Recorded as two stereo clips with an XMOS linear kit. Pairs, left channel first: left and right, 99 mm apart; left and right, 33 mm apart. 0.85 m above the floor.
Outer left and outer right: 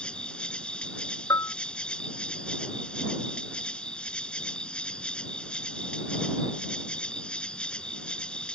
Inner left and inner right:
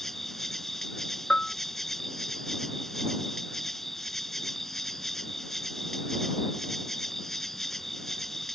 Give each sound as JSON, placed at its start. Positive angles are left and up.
{"t": 0.0, "sound": "an insect", "side_deg": 10}
{"t": 1.3, "sound": "a bell", "side_deg": 35}